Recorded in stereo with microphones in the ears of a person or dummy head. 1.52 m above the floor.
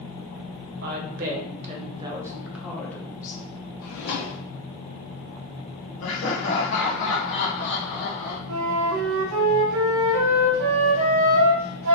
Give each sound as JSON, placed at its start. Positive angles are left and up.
{"t": 0.8, "sound": "a woman speaking", "side_deg": -55, "distance_m": 1.2}
{"t": 3.8, "sound": "a drawer", "side_deg": 60, "distance_m": 1.3}
{"t": 6.0, "sound": "laughter", "side_deg": 70, "distance_m": 0.8}
{"t": 8.5, "sound": "a flute", "side_deg": -80, "distance_m": 0.7}